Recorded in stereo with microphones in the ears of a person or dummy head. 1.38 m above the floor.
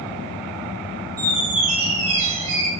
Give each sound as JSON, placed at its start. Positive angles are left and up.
{"t": 1.2, "sound": "a squeak", "side_deg": -45, "distance_m": 1.8}